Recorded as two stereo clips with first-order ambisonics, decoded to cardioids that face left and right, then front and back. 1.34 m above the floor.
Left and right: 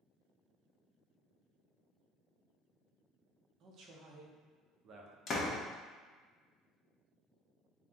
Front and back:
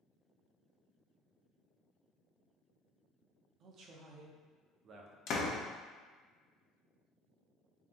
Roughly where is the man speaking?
Behind right.